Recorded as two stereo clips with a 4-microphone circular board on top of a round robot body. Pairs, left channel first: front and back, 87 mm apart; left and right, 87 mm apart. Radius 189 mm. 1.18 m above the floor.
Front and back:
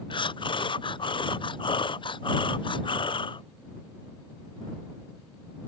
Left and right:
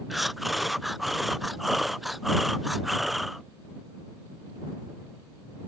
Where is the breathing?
Straight ahead.